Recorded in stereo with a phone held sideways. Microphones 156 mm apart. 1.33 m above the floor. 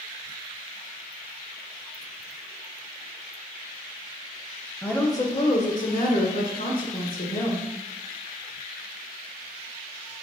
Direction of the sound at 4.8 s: 10° left (ahead or behind).